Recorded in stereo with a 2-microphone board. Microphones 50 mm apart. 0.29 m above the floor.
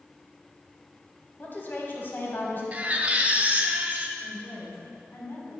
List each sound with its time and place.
1.4 s a woman speaking: 45° left (ahead or behind), 2 m
2.7 s a baby crying: 30° right (ahead or behind), 0.8 m
4.2 s a woman speaking: 50° left (ahead or behind), 3 m